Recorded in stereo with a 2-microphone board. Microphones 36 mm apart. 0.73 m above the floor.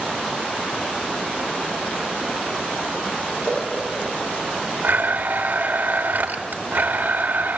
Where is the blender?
50° right (ahead or behind), 1.8 m.